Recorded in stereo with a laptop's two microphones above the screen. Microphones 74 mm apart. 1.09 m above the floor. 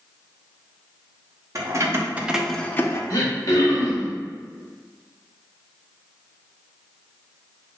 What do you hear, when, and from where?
1.6 s keys jangling: 45° right (ahead or behind), 0.9 m; by 3.0 s 40° left (ahead or behind), 0.6 m
3.1 s throat clearing: 45° left (ahead or behind), 0.9 m